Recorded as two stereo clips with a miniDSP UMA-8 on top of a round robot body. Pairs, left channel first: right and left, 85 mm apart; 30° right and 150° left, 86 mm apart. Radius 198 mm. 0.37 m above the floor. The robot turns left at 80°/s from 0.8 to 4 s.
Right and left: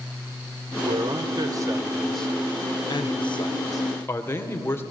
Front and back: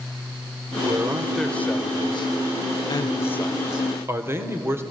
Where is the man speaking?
105° left, 2 m; by 4.8 s 150° right, 2 m.